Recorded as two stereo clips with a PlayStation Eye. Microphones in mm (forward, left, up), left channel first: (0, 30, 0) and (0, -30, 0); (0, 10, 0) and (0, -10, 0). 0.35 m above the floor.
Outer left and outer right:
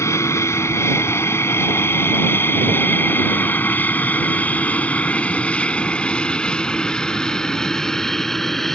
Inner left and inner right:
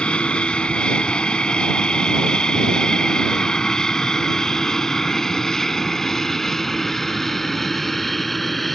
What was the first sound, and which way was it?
An aircraft, 50° left (ahead or behind).